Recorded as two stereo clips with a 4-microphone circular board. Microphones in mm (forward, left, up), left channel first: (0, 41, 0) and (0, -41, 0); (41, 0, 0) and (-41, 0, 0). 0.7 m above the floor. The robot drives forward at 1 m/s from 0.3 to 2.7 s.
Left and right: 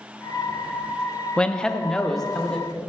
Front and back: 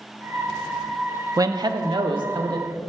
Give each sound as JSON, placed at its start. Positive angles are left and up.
{"t": 1.4, "sound": "a man speaking", "azimuth_deg": 160, "distance_m": 0.6}